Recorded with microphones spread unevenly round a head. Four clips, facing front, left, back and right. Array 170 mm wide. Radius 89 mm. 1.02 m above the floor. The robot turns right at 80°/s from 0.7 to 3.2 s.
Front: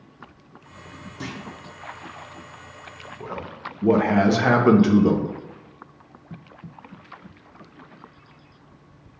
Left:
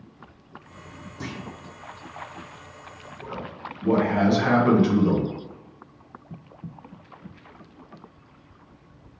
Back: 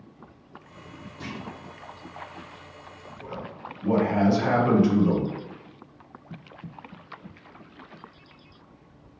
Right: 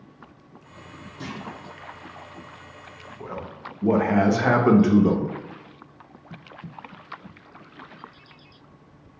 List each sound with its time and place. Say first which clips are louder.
1.2 s a clunk: even, front 3 dB; 30° left, 0.6 m; by 1.4 s 45° left, 0.6 m
3.2 s a man speaking: even, front 4 dB; 40° right, 0.7 m